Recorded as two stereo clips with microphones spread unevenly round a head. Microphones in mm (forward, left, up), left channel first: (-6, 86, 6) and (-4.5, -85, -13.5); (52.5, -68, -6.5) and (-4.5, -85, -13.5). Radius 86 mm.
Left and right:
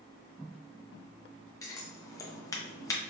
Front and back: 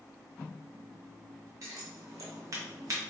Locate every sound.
1.6 s scissors: 155° left, 0.8 m